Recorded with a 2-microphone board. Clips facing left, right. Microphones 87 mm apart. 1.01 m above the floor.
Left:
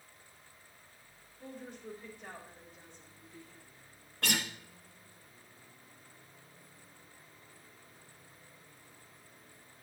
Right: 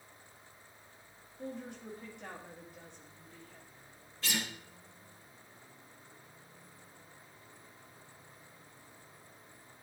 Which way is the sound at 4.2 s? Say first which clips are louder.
Left 3 dB; 60° left (ahead or behind).